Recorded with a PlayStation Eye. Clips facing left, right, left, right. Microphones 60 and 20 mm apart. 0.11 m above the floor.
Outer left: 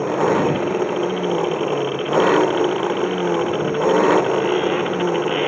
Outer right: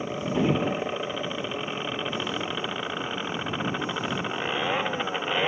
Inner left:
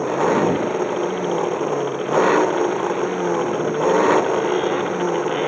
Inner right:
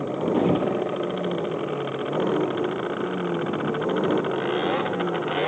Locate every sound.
0.0 s an engine running: 80° left